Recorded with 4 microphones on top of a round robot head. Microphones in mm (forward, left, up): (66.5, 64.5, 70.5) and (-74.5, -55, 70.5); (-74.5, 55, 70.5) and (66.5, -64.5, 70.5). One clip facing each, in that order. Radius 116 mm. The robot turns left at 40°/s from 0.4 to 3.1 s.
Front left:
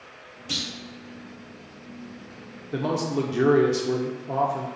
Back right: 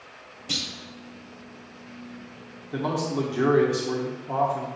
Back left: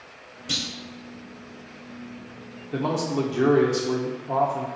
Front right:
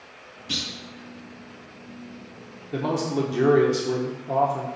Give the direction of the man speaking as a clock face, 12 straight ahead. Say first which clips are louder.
Front left 1 dB, even; 11 o'clock.